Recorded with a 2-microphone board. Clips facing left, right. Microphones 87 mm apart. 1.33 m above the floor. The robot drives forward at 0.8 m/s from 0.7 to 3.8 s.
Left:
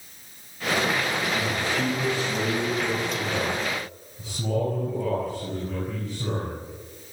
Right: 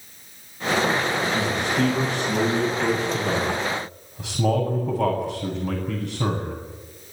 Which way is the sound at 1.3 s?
60° right (ahead or behind).